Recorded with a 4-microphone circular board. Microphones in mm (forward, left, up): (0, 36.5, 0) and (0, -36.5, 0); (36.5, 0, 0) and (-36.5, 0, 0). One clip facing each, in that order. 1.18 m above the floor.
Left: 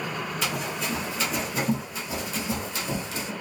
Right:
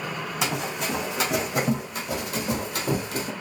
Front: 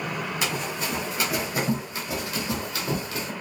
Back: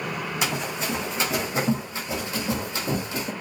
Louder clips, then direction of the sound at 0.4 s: Right 4 dB, back 3 dB; 110° right.